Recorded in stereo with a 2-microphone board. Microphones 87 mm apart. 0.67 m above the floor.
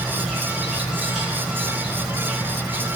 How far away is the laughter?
No laughter in this recording.